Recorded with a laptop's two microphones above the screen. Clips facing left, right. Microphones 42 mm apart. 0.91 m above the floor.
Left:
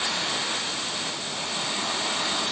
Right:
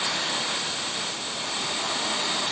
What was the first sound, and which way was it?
Only background noise.